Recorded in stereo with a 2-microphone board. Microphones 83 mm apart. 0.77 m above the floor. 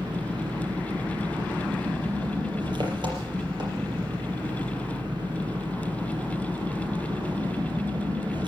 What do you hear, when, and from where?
0.0 s an engine running: 70° right (ahead or behind), 4.5 m